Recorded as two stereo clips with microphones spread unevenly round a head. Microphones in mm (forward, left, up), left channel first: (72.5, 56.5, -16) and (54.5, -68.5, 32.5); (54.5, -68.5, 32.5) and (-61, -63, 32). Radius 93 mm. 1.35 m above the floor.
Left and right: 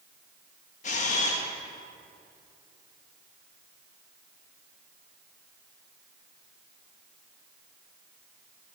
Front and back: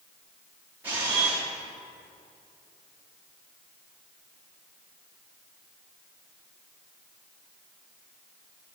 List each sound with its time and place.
0.8 s a camera shutter: 110° left, 0.7 m